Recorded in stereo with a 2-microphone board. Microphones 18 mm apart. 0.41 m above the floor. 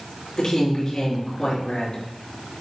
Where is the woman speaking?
30° left (ahead or behind), 5.5 m.